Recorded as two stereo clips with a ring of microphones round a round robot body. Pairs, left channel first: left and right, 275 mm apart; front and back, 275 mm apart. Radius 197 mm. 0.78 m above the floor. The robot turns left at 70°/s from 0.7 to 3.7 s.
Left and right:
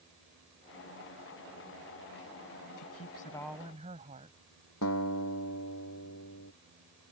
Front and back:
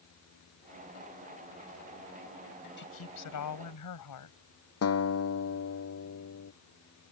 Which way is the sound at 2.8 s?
50° left.